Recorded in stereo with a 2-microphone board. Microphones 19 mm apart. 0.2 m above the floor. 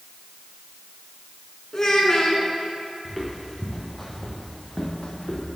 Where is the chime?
No chime in this recording.